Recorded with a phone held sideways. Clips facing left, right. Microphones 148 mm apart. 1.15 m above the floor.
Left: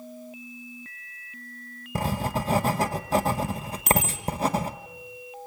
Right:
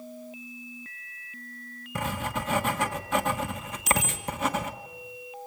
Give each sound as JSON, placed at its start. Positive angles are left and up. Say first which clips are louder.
{"t": 1.9, "sound": "writing", "louder": "left 4 dB", "side_deg": 35, "distance_m": 1.2}
{"t": 3.9, "sound": "a bicycle bell", "louder": "left 3 dB", "side_deg": 60, "distance_m": 7.5}